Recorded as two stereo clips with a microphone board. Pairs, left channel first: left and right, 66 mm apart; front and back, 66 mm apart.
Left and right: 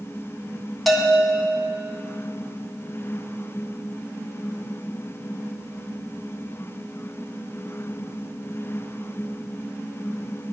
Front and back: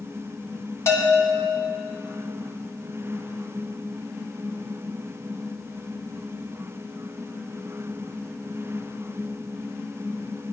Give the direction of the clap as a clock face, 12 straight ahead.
I don't hear a clap.